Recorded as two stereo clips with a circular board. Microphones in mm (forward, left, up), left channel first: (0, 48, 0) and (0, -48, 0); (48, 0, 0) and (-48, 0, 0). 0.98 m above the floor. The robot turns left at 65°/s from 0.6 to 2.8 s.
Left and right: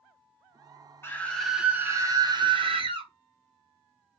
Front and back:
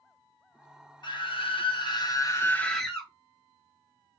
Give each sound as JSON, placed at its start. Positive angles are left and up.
{"t": 1.0, "sound": "a scream", "azimuth_deg": 30, "distance_m": 1.4}